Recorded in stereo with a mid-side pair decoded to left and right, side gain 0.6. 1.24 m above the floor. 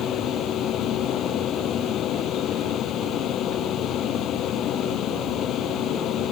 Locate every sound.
0.0 s a fan: 55° left